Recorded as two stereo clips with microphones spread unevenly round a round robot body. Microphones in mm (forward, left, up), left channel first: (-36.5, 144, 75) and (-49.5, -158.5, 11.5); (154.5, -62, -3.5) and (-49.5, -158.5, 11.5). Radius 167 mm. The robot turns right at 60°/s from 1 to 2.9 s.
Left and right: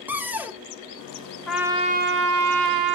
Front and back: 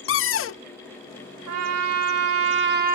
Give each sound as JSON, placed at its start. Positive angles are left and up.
{"t": 0.1, "sound": "a cupboard door", "azimuth_deg": -10, "distance_m": 0.5}
{"t": 1.5, "sound": "a trumpet", "azimuth_deg": 170, "distance_m": 1.0}